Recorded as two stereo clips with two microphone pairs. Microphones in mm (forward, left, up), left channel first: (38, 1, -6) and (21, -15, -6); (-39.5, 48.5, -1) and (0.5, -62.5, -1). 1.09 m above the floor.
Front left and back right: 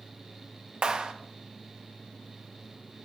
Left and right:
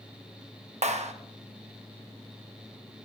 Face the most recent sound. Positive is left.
turn(degrees=-90)